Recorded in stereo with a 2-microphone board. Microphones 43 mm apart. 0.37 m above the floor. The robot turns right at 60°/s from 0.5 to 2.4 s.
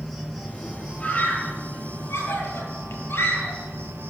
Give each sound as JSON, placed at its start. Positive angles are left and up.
{"t": 0.0, "sound": "an insect", "azimuth_deg": 180, "distance_m": 5.0}
{"t": 1.0, "sound": "a scream", "side_deg": 25, "distance_m": 8.5}